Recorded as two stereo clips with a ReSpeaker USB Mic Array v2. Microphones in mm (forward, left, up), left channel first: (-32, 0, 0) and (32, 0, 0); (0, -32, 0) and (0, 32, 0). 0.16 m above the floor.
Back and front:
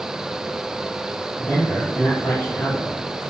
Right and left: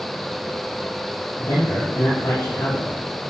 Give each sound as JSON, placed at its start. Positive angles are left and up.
{"t": 1.4, "sound": "a man speaking", "azimuth_deg": -135, "distance_m": 4.5}